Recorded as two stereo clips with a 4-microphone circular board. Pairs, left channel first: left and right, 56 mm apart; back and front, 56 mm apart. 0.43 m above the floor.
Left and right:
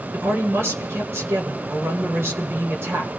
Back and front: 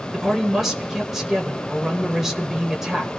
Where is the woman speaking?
85° right, 1.6 m.